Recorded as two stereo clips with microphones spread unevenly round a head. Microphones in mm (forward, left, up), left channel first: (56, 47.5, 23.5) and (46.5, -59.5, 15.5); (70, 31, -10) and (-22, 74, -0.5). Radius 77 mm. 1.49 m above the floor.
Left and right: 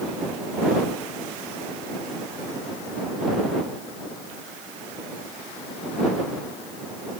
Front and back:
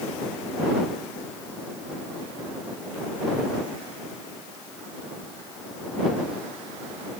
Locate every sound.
Only background noise.